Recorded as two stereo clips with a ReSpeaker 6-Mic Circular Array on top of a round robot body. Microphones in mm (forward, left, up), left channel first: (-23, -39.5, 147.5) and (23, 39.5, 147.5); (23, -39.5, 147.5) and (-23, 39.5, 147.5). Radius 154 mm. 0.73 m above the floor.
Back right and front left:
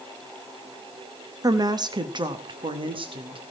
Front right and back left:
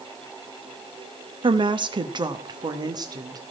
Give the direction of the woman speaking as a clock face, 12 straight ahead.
9 o'clock.